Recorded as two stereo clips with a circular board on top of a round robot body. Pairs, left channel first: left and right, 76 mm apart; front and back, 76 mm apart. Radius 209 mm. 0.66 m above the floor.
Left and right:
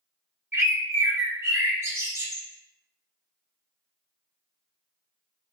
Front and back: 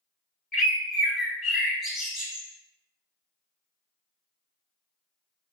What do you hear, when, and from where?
0.5 s a bird: 95° right, 1.2 m